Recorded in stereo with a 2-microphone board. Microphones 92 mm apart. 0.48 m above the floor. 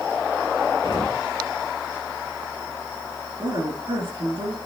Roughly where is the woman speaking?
Right.